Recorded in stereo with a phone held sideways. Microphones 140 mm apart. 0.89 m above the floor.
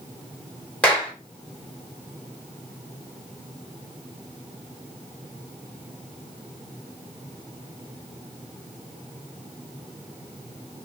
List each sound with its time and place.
0.8 s a clap: 10° left (ahead or behind), 1.1 m